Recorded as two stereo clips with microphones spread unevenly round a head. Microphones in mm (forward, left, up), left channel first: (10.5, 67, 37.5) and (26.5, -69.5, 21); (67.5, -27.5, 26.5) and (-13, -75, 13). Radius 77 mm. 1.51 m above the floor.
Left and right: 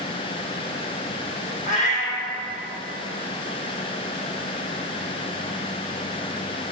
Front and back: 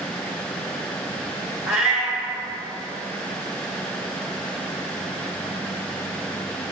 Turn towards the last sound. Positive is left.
turn(degrees=125)